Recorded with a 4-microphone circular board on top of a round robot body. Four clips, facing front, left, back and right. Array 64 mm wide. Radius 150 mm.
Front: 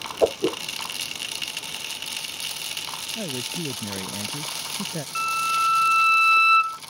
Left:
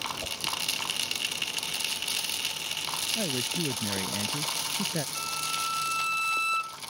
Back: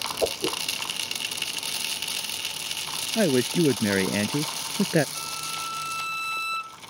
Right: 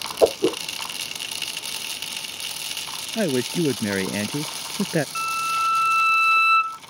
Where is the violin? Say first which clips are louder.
Right 9 dB, front 11 dB; 40° right.